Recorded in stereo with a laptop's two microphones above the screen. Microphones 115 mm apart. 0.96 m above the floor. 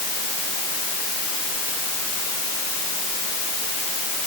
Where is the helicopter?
I don't hear a helicopter.